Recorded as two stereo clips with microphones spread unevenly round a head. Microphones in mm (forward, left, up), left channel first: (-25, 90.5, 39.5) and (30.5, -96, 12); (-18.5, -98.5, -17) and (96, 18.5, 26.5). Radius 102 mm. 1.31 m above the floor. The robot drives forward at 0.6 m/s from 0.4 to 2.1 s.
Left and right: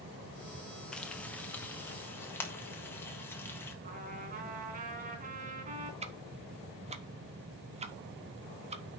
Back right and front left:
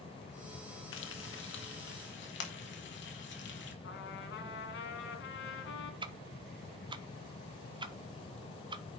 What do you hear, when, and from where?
0.9 s frying: 165° right, 0.8 m; by 3.7 s 175° right, 1.5 m
3.8 s a trumpet: 130° right, 2 m
6.0 s ticking: 25° right, 0.9 m